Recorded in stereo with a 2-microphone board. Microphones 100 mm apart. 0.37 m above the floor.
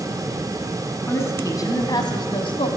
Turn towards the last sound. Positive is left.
turn(degrees=60)  # may be behind; listen again after turning